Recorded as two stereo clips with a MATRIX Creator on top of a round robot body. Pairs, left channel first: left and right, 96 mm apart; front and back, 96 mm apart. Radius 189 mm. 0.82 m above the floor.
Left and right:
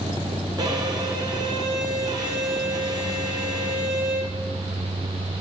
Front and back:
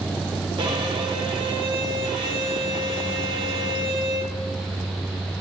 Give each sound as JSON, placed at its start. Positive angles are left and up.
{"t": 0.6, "sound": "a violin", "azimuth_deg": -140, "distance_m": 0.9}